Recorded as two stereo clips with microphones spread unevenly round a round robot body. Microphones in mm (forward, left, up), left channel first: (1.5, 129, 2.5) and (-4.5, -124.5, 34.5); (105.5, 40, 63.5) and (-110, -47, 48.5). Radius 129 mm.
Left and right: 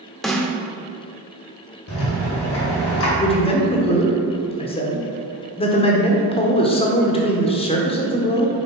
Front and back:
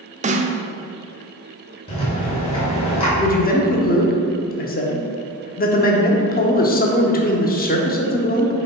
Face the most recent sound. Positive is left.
turn(degrees=45)